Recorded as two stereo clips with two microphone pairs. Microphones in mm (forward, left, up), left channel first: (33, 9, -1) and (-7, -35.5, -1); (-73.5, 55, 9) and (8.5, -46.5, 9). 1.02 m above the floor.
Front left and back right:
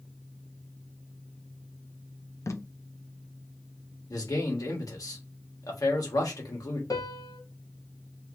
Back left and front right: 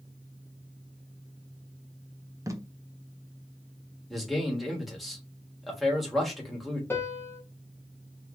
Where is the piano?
60° left, 0.8 m.